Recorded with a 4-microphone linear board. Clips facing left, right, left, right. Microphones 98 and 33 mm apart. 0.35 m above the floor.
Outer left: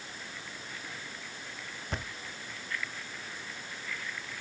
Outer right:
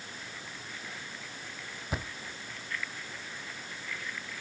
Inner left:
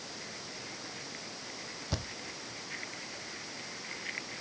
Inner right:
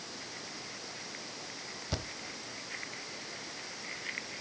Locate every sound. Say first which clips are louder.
1.9 s a thud: outer right 2 dB, even; 5° right (ahead or behind), 0.6 m